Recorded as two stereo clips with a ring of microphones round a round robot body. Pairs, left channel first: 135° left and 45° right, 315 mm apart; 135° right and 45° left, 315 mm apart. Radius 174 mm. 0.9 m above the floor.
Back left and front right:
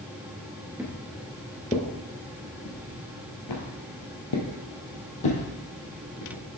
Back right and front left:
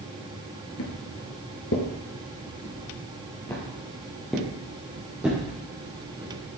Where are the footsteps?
125° right, 1.1 m; by 6.4 s 125° left, 3 m.